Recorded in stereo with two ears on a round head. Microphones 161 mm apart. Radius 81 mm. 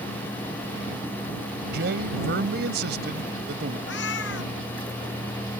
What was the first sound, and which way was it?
A man speaking, 60° right (ahead or behind).